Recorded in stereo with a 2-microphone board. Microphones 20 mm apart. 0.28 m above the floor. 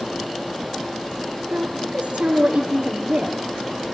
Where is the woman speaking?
70° right (ahead or behind), 5.5 m.